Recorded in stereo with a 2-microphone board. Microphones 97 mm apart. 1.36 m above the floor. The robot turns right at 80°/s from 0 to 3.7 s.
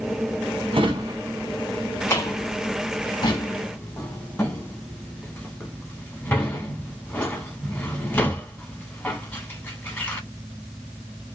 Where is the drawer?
60° right (ahead or behind), 1.1 m; by 10.2 s 20° left (ahead or behind), 1.1 m.